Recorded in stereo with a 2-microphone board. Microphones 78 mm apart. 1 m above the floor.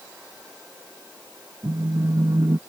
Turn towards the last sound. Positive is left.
turn(degrees=-55)  # may be behind; listen again after turning